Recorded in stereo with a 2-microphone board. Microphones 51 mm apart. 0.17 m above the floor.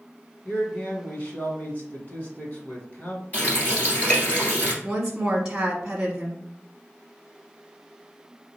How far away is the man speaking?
About 1.7 m.